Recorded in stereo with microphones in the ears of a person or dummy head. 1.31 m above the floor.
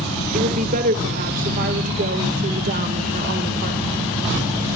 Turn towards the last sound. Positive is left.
turn(degrees=-45)  # may be behind; listen again after turning